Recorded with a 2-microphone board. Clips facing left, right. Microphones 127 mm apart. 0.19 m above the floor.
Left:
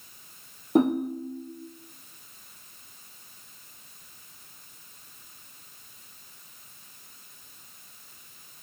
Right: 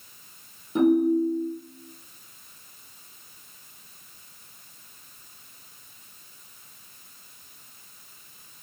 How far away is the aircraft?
I don't hear an aircraft.